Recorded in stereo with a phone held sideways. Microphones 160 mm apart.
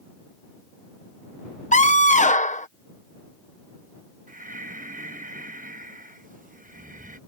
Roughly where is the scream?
Left.